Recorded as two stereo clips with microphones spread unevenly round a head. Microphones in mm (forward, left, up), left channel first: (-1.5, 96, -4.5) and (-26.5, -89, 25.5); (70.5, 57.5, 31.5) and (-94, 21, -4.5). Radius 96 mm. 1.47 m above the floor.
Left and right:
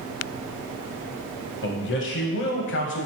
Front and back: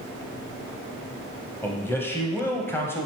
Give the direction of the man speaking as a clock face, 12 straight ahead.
9 o'clock.